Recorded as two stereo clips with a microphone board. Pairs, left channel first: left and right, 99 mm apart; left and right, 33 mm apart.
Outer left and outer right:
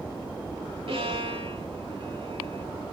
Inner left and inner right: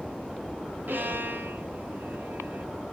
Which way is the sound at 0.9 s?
75° right (ahead or behind).